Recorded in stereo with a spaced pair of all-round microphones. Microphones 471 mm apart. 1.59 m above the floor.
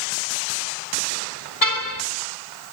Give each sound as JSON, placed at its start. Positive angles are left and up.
{"t": 1.6, "sound": "a car horn", "side_deg": 40, "distance_m": 5.5}